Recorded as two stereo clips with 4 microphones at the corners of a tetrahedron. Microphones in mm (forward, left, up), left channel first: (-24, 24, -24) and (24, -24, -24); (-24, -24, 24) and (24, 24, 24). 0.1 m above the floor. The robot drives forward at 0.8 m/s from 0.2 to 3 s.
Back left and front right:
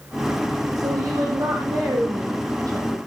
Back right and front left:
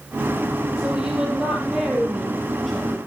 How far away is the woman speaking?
About 3.5 m.